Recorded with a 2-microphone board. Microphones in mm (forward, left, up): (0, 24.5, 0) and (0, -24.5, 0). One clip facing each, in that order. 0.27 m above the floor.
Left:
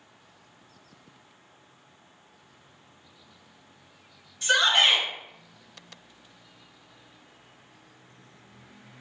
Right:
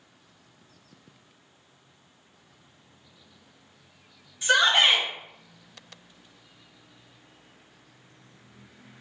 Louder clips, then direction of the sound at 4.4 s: Right 1 dB; 10° right (ahead or behind).